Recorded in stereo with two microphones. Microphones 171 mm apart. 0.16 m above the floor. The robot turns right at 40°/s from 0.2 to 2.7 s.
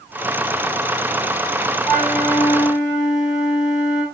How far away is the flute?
About 4 m.